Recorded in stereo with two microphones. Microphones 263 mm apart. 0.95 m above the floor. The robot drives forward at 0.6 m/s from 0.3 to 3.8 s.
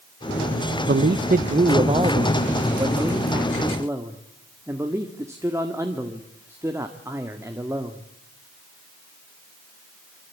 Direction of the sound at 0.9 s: 45° right (ahead or behind).